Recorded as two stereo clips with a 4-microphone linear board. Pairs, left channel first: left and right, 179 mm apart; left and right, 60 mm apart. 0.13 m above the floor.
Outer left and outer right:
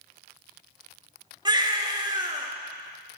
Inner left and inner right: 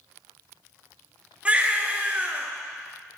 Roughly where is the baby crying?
Right.